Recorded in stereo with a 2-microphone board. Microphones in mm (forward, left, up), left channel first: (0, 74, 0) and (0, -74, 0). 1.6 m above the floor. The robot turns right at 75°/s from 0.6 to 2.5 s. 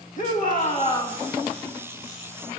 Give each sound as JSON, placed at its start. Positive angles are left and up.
{"t": 0.2, "sound": "a shout", "azimuth_deg": 120, "distance_m": 2.5}